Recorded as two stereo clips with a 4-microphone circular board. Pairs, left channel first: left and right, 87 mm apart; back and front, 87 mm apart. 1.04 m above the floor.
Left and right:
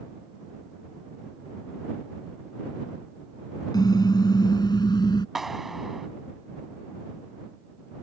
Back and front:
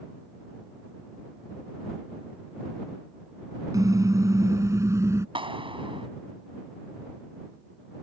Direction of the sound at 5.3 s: 5° right.